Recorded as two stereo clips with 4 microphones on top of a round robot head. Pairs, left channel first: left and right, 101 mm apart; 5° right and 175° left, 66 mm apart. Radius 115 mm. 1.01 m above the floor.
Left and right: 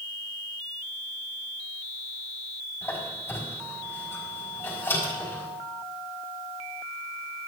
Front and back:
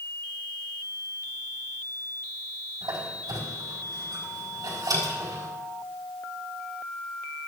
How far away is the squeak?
About 4.5 m.